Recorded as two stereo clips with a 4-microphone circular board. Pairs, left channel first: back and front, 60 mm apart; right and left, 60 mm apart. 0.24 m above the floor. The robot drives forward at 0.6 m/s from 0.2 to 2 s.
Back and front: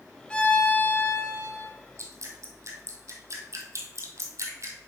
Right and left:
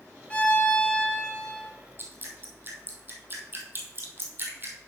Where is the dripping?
35° left, 1.4 m.